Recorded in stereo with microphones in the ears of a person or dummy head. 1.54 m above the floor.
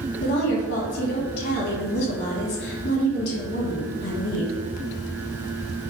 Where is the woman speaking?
65° left (ahead or behind), 1.8 m.